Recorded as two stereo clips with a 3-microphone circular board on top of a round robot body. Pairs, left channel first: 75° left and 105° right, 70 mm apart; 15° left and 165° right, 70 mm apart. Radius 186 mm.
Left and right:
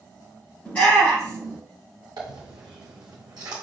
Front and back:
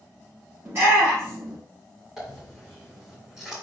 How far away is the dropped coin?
About 0.7 m.